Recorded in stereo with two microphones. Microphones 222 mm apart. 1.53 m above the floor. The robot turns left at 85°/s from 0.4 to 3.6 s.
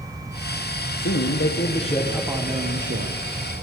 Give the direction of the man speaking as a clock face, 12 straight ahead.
9 o'clock.